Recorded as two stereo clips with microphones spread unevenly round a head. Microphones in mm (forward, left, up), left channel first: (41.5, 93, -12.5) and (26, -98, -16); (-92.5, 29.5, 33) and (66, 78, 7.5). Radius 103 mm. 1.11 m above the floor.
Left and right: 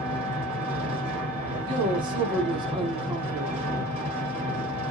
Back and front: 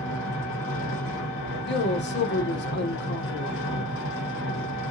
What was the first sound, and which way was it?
An engine running, 160° right.